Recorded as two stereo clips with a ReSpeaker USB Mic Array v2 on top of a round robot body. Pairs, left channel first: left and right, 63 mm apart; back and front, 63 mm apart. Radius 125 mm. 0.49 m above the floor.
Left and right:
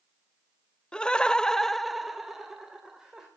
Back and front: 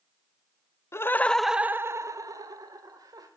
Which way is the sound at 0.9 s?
160° left.